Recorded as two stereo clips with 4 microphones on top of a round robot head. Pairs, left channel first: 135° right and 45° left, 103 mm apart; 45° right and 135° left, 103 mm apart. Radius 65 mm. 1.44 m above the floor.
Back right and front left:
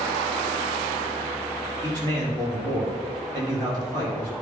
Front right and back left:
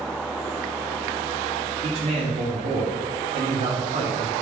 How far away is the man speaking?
About 3 m.